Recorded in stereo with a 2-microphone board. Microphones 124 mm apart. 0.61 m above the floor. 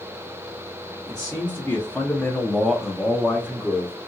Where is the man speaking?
20° left (ahead or behind), 1.0 m; by 4.0 s 15° right (ahead or behind), 1.1 m.